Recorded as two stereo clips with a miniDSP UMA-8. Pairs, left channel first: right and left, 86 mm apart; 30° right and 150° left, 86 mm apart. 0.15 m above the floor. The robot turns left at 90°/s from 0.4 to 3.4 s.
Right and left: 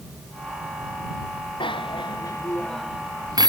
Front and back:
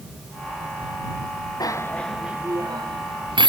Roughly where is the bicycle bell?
Right.